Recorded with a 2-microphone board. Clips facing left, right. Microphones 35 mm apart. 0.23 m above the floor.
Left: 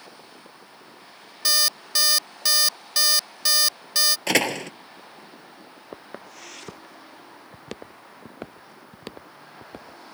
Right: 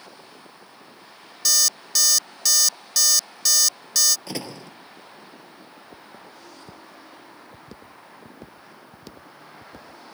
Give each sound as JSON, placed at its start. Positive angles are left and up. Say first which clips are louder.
{"t": 1.4, "sound": "an alarm clock", "louder": "left 1 dB", "side_deg": 25}
{"t": 4.3, "sound": "a door slam", "louder": "left 11 dB", "side_deg": 65}
{"t": 5.9, "sound": "footsteps", "louder": "left 7 dB", "side_deg": 85}